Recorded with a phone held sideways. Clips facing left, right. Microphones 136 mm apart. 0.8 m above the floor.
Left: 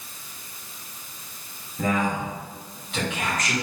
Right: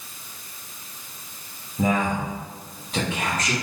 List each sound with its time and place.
1.8 s a man speaking: 15° right (ahead or behind), 1.3 m; by 3.5 s 35° right (ahead or behind), 1.8 m